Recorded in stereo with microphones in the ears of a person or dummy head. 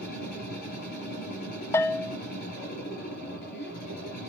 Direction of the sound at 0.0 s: 70° left (ahead or behind).